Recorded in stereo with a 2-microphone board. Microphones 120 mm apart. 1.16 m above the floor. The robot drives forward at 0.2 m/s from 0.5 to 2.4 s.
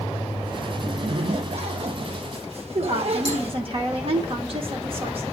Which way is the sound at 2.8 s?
50° right (ahead or behind).